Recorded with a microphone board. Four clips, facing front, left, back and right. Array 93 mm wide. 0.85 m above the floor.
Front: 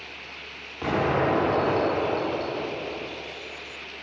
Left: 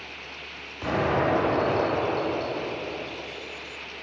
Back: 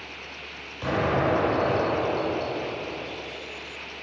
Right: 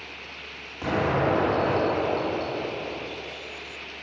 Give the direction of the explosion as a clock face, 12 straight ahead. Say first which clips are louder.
Even, front 1 dB; 1 o'clock.